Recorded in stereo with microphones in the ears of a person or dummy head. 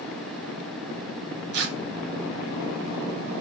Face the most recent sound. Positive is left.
turn(degrees=-60)  # may be behind; listen again after turning